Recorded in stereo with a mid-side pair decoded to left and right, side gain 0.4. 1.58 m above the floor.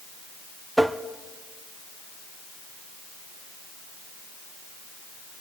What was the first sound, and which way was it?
Tapping, 5° right.